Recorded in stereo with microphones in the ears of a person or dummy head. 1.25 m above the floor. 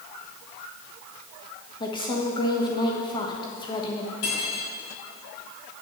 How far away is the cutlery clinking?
About 3.5 m.